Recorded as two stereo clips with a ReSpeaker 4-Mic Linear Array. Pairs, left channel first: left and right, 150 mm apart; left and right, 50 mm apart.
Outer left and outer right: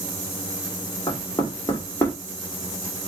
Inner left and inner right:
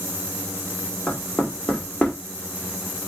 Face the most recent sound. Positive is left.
turn(degrees=20)  # may be behind; listen again after turning